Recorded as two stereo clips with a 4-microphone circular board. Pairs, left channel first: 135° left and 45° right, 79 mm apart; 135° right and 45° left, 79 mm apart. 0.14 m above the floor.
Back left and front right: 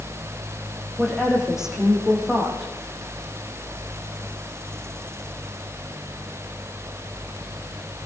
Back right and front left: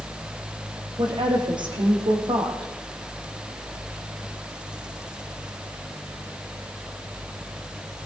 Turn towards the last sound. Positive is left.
turn(degrees=40)